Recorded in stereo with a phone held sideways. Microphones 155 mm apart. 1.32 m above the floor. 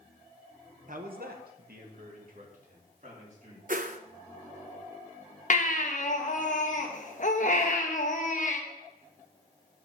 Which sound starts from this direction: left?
A baby crying, at 5.5 s.